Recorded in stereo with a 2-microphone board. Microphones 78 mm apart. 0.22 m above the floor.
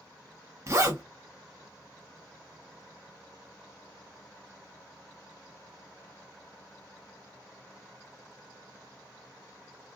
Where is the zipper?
40° right (ahead or behind), 0.9 m.